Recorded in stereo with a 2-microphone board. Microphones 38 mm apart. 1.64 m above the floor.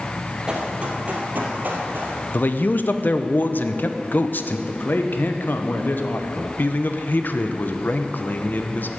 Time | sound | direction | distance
0.5 | running footsteps | 25° right (ahead or behind) | 3 m
2.3 | a man speaking | 55° left (ahead or behind) | 0.8 m
4.7 | a man speaking | 55° left (ahead or behind) | 1.3 m
6.6 | a man speaking | 55° left (ahead or behind) | 1.0 m